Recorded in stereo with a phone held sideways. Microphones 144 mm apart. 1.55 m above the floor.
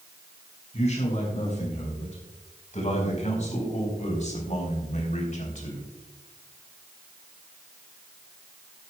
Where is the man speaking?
55° left (ahead or behind), 6 m; by 5.8 s 60° left (ahead or behind), 3 m.